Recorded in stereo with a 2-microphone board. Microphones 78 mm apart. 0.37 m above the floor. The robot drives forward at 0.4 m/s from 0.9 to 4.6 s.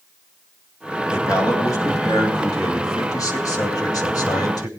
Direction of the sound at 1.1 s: 40° left (ahead or behind).